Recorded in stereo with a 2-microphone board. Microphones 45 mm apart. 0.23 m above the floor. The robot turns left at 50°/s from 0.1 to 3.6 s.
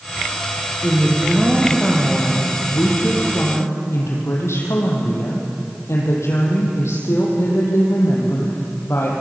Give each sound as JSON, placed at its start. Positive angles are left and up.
{"t": 0.8, "sound": "a woman speaking", "azimuth_deg": -140, "distance_m": 6.0}